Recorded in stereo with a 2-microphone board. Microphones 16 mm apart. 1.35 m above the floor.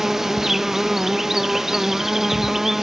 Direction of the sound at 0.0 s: 30° right (ahead or behind).